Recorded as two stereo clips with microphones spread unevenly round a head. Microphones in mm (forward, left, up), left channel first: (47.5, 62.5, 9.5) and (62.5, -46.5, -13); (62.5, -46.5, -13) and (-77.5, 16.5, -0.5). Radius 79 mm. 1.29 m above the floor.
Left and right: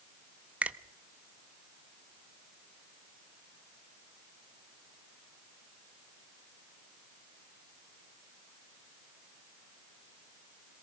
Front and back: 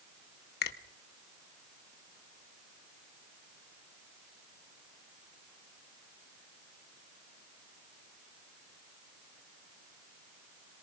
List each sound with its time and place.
0.6 s a finger snap: straight ahead, 1.0 m